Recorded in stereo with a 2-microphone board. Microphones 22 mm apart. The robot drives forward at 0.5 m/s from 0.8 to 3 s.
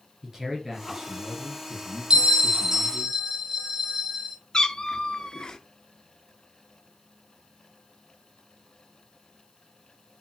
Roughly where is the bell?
Right.